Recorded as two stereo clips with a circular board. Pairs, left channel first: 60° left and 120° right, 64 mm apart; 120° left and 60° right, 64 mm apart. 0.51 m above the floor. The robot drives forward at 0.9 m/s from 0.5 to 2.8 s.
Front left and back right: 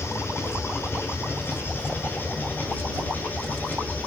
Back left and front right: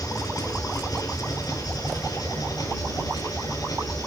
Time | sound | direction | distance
0.0 | an engine running | 105° left | 7 m